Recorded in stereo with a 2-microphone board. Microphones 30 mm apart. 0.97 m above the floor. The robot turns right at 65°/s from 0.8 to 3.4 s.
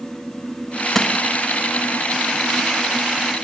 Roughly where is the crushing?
Centre.